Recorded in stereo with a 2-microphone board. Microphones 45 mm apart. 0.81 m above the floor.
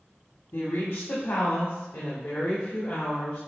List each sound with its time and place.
0.5 s a woman speaking: 75° left (ahead or behind), 1.5 m; by 3.4 s 45° left (ahead or behind), 2.5 m